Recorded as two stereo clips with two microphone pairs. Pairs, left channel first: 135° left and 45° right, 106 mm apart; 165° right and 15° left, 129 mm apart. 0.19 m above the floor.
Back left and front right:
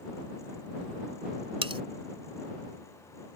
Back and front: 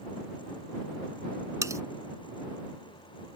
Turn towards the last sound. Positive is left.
turn(degrees=-45)